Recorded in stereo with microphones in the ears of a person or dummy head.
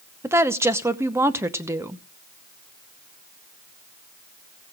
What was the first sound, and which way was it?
A woman speaking, 10° right (ahead or behind).